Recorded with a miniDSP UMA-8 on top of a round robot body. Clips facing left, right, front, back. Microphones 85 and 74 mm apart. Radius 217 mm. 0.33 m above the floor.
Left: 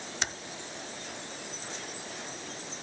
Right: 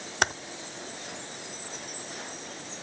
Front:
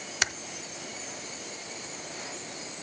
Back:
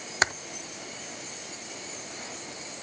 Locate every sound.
0.2 s typing on a keyboard: 125° right, 0.8 m